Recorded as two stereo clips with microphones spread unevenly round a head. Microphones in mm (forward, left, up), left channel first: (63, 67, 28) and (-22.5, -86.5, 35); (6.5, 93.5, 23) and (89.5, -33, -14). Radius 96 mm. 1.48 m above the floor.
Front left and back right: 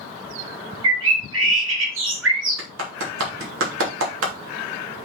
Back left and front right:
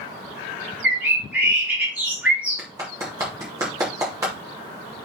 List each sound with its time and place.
0.8 s a bird: 145° right, 2 m
2.6 s a clap: 135° right, 3 m